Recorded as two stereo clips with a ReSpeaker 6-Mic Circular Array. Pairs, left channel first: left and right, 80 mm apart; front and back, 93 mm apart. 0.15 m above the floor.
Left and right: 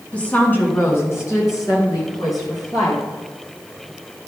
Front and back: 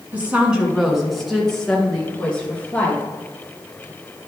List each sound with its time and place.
0.1 s a woman speaking: 140° left, 1.7 m; by 3.0 s 70° left, 3 m